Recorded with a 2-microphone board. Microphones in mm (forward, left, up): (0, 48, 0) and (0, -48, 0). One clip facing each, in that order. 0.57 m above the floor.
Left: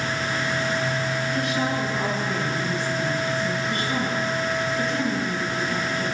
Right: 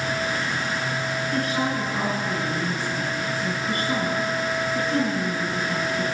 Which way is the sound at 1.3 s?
40° right (ahead or behind).